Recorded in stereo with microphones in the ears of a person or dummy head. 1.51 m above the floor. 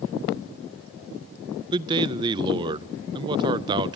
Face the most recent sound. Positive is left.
turn(degrees=-25)  # may be behind; listen again after turning